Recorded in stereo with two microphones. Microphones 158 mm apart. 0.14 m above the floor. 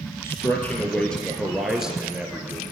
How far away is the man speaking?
About 3.5 m.